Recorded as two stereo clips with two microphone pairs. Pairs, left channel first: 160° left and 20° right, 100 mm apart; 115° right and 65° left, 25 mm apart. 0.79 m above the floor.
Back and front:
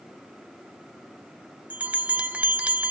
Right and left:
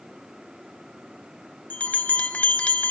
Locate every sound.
1.7 s a bell: 95° right, 0.5 m